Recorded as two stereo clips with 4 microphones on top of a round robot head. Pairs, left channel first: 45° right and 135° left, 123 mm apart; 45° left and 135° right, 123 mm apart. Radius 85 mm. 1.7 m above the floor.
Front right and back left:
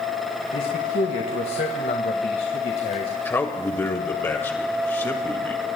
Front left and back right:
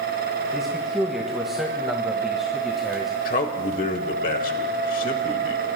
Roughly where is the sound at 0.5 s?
Ahead right.